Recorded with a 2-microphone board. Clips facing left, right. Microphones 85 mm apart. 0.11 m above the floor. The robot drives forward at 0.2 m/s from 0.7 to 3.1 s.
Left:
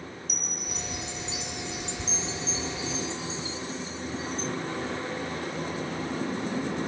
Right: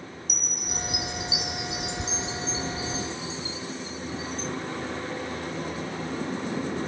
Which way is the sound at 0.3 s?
10° right (ahead or behind).